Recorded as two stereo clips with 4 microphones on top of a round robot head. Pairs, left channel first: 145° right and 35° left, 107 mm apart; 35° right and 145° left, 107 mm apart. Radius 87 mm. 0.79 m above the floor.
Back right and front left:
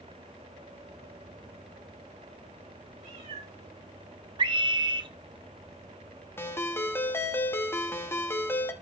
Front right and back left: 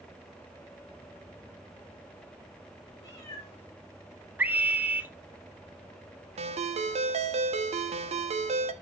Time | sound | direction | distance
3.0 | a cat meowing | 30° left | 6 m
4.4 | a scream | 75° left | 1.3 m
6.4 | a ringtone | 145° left | 1.1 m